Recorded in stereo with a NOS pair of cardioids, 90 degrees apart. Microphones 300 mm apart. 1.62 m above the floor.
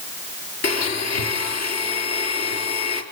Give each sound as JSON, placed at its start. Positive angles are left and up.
{"t": 0.6, "sound": "a blender", "azimuth_deg": 65, "distance_m": 5.0}